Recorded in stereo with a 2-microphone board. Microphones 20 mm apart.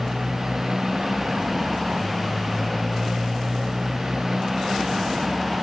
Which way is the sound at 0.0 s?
40° right (ahead or behind).